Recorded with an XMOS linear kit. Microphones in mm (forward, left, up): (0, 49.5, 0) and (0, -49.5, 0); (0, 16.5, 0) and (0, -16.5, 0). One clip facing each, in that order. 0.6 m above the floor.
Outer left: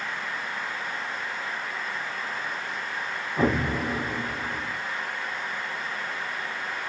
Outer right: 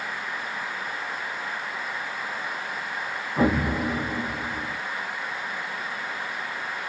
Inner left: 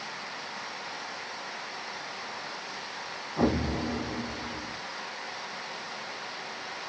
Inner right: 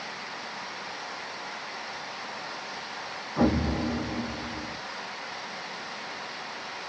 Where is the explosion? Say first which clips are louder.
Outer right 2 dB, inner right 2 dB; 45° right (ahead or behind), 0.9 m.